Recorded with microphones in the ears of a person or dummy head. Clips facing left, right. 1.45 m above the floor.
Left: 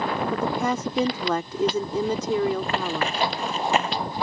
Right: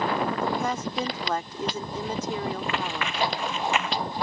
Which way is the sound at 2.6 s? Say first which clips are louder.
Left 4 dB; 40° left (ahead or behind).